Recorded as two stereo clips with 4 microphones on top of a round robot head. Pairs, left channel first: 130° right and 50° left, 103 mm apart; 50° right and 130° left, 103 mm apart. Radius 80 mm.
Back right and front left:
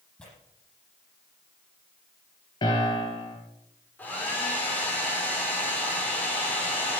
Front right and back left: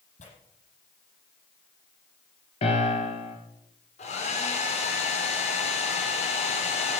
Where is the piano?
80° right, 4 m.